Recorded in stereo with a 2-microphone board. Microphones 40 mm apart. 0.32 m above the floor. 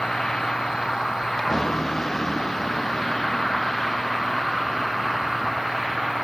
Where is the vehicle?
10° left (ahead or behind); by 6.2 s centre (ahead or behind).